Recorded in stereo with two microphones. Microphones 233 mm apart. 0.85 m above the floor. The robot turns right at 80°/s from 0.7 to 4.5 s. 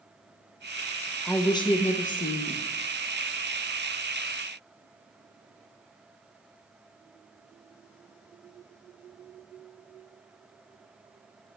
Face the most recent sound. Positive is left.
turn(degrees=-90)